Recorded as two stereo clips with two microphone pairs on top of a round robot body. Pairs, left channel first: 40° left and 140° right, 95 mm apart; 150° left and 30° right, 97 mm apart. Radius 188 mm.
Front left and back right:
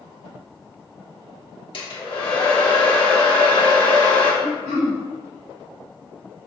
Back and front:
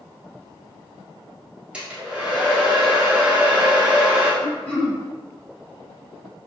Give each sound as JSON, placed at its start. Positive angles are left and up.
{"t": 1.7, "sound": "a hair dryer", "azimuth_deg": 45, "distance_m": 1.6}
{"t": 4.4, "sound": "throat clearing", "azimuth_deg": -145, "distance_m": 1.2}